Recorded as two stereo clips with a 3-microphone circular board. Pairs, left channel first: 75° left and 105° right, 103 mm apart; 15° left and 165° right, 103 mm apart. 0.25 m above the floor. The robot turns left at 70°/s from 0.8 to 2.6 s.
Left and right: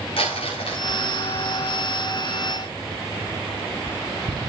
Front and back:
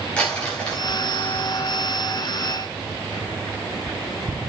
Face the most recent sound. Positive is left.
turn(degrees=-30)